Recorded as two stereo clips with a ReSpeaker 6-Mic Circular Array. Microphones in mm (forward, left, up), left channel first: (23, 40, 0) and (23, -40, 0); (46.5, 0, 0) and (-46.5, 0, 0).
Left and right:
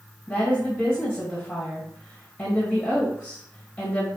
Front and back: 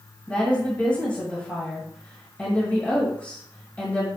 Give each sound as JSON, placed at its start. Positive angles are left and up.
{"t": 0.3, "sound": "a woman speaking", "azimuth_deg": 40, "distance_m": 1.4}